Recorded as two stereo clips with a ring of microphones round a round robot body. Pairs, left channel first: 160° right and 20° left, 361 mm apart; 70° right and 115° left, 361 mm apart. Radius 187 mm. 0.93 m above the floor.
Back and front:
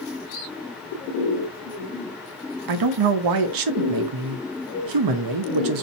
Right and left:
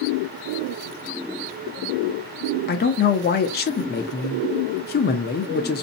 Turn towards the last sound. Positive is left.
turn(degrees=-5)